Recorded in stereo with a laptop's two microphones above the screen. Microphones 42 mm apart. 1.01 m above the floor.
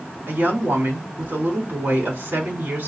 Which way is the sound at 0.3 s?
60° right (ahead or behind).